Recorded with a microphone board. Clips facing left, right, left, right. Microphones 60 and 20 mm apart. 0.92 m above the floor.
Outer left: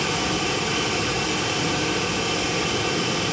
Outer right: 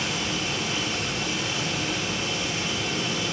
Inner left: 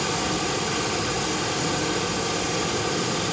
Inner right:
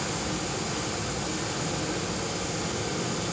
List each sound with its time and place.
0.0 s running water: 75° left (ahead or behind), 1.5 m